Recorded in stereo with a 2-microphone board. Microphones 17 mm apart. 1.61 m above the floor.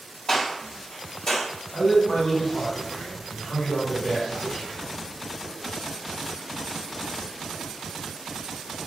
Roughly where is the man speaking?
Left.